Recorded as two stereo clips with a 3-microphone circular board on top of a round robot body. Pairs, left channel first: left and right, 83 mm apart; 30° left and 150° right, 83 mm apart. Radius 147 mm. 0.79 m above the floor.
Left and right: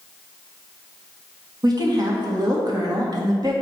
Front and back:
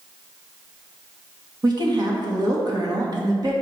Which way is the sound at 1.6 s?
120° right.